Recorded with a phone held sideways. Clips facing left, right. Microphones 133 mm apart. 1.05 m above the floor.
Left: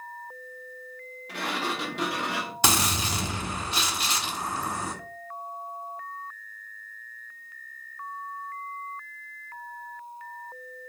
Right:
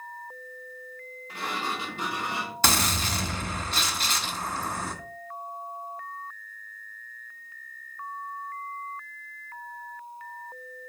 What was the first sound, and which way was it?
A sliding door, 85° left.